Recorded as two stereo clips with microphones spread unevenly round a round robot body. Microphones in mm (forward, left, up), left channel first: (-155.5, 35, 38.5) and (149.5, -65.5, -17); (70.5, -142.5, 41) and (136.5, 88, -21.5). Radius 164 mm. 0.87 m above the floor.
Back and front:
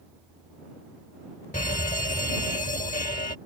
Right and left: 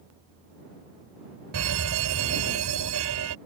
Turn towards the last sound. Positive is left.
turn(degrees=95)